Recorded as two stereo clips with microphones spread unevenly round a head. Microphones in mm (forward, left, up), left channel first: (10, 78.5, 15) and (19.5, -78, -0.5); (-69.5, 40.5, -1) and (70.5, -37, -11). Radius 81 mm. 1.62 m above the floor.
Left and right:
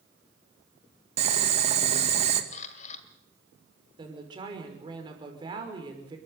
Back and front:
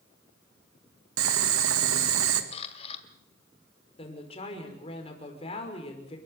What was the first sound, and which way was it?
Boiling, 35° right.